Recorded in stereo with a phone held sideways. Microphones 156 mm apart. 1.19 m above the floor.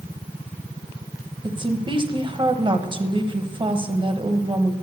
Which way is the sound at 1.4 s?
30° right (ahead or behind).